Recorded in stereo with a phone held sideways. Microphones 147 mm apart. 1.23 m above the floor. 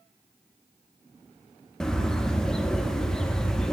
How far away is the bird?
About 0.5 m.